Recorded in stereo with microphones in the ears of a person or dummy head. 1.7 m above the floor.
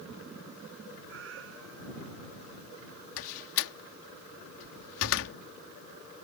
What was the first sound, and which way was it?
A cat meowing, 80° right.